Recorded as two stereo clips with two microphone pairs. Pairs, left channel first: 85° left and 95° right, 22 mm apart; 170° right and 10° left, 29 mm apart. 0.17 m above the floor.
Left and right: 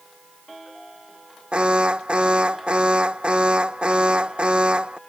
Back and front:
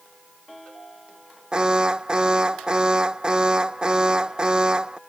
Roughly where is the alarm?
Ahead right.